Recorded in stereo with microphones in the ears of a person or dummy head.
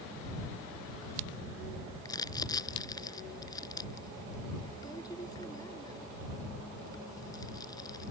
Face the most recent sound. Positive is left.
turn(degrees=15)  # may be behind; listen again after turning